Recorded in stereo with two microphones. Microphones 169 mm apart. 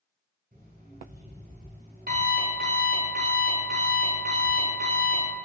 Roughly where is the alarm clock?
Right.